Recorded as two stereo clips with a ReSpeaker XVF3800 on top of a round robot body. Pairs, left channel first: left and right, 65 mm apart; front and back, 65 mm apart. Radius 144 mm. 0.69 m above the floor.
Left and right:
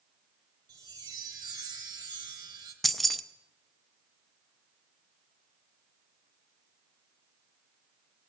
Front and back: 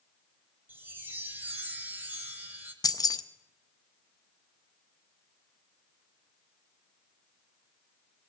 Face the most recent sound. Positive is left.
turn(degrees=0)